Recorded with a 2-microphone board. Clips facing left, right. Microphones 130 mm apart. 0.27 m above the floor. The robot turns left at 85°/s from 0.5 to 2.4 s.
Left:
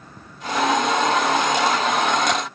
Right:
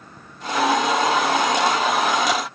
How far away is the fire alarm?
No fire alarm in this recording.